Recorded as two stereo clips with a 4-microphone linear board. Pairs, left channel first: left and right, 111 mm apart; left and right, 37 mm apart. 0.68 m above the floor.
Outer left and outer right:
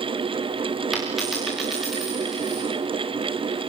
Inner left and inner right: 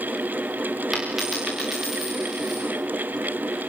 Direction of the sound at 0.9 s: 5° right (ahead or behind).